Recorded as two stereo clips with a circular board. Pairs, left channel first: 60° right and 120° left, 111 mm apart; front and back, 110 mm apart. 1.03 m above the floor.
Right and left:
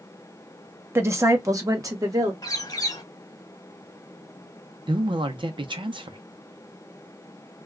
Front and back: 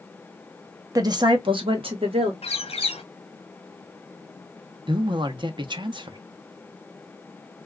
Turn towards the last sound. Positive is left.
turn(degrees=150)